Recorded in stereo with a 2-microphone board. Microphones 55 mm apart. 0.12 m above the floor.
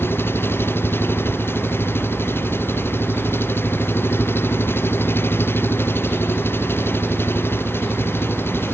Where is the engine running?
50° left (ahead or behind).